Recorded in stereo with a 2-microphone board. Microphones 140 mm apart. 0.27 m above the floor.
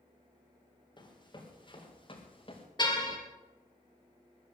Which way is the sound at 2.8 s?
30° left (ahead or behind).